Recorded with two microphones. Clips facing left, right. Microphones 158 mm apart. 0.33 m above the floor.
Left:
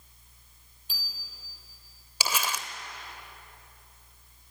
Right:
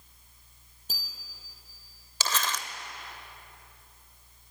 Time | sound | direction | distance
0.9 | a bicycle bell | 45° right (ahead or behind) | 6.5 m
2.2 | crumpling | 10° left (ahead or behind) | 1.1 m